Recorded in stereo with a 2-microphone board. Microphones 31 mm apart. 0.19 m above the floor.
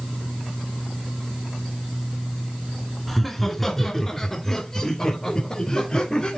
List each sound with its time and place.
3.1 s laughter: 5° left (ahead or behind), 2.5 m; by 6.4 s 30° left (ahead or behind), 4.5 m